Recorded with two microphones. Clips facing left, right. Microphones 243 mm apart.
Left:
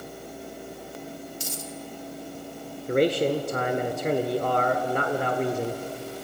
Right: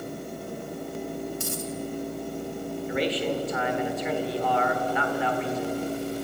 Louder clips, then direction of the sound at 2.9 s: Left 6 dB; 50° left (ahead or behind).